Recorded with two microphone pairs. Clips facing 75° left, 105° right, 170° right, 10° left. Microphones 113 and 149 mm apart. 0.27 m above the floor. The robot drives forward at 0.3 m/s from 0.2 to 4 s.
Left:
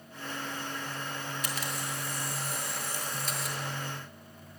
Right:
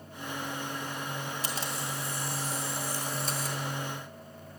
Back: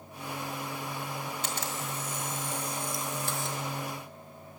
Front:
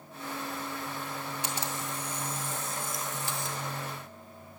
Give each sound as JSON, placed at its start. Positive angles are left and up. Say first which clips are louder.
{"t": 1.4, "sound": "a camera shutter", "louder": "right 1 dB, even", "azimuth_deg": -55, "distance_m": 2.0}